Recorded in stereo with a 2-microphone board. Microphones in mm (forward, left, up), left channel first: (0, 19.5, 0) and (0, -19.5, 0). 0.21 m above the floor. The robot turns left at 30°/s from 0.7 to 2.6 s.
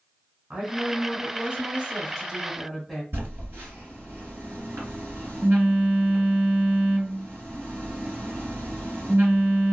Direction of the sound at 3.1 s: 65° right (ahead or behind).